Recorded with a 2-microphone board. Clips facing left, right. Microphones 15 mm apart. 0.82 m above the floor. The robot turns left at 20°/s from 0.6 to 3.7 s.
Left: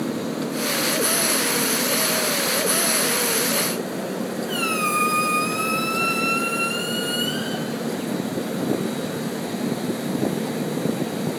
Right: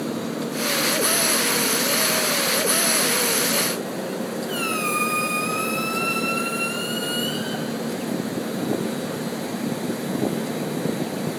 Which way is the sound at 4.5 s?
10° left (ahead or behind).